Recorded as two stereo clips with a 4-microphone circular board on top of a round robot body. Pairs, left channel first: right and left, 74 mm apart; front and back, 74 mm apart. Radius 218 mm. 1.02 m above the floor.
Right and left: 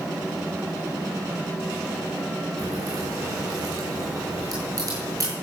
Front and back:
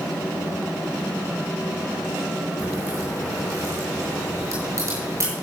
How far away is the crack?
About 8 m.